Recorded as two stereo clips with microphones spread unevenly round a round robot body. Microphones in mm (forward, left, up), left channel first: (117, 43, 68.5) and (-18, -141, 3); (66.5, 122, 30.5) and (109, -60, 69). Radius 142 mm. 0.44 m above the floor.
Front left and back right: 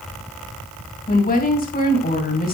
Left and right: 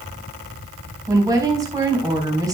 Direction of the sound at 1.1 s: Straight ahead.